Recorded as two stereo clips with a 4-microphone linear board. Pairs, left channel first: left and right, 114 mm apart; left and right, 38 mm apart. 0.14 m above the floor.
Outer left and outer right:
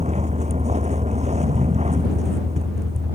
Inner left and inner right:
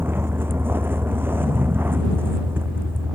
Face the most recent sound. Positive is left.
turn(degrees=-80)